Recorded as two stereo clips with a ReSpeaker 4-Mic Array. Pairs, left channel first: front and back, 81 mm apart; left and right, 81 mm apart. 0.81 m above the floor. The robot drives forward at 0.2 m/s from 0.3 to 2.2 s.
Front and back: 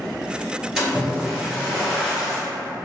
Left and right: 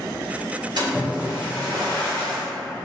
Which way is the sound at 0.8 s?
90° right.